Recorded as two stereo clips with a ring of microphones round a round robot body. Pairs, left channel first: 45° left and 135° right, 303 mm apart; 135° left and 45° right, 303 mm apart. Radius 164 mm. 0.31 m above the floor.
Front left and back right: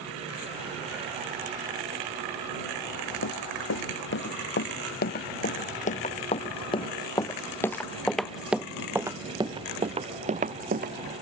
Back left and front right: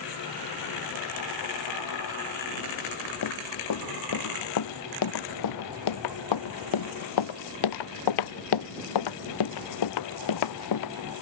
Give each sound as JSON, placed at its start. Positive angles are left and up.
{"t": 3.2, "sound": "running footsteps", "azimuth_deg": 95}